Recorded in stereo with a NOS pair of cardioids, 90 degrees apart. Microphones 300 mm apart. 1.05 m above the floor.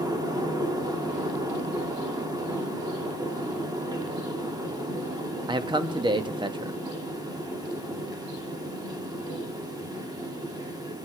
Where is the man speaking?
15° right, 1.1 m.